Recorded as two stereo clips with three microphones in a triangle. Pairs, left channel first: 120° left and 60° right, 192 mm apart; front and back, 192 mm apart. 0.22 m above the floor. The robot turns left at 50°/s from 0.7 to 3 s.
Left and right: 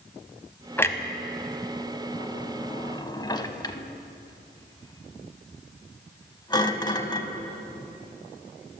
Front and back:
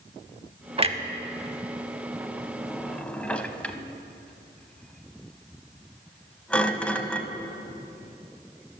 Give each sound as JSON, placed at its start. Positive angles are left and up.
{"t": 0.8, "sound": "a clunk", "azimuth_deg": -170, "distance_m": 0.5}